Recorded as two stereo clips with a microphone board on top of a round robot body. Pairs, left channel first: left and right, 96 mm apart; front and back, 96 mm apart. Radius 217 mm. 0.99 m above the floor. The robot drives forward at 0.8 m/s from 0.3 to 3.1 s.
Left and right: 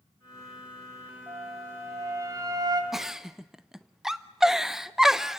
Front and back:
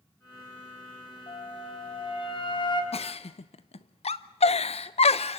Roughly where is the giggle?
Ahead.